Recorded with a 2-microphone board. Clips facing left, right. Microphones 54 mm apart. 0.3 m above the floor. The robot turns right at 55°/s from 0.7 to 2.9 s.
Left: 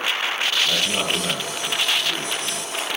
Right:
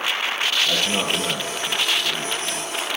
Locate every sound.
0.6 s a man speaking: 15° right (ahead or behind), 7 m; by 2.7 s 80° left, 7 m